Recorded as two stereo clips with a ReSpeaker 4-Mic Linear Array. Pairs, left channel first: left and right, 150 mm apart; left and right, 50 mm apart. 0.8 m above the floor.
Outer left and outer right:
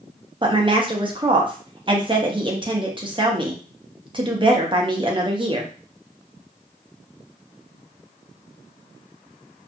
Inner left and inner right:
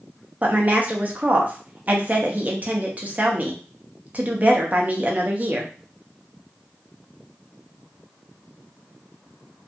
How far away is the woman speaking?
About 0.7 m.